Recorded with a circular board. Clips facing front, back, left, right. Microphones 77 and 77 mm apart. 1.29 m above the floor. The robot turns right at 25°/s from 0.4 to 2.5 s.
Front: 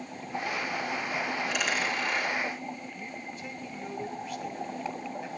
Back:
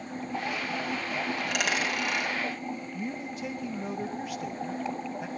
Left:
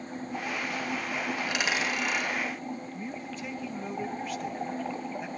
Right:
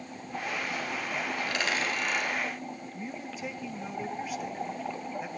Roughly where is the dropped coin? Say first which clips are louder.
Back 1 dB, even; behind.